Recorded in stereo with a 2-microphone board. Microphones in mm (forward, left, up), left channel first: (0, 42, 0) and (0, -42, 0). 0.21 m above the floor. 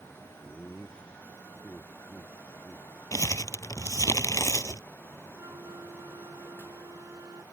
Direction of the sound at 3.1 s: 40° left (ahead or behind).